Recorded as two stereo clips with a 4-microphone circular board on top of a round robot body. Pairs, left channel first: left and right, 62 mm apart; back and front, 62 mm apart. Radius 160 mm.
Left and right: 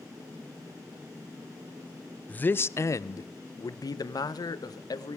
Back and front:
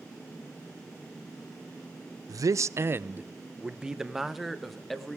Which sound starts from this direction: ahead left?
A man speaking, at 2.3 s.